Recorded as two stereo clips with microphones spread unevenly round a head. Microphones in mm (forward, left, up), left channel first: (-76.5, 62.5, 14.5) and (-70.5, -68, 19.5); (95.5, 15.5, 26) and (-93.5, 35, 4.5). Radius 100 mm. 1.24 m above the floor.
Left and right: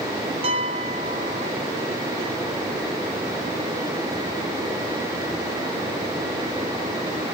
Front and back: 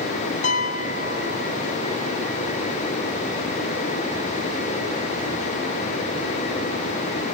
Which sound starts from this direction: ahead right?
A piano, at 0.4 s.